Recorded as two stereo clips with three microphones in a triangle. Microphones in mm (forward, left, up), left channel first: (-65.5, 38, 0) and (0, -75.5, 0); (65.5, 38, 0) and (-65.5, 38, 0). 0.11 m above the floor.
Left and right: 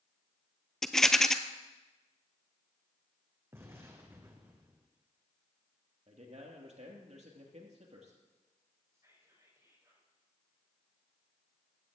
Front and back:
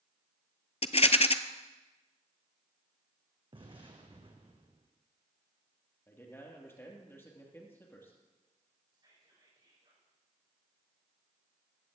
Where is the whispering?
125° right, 6 m.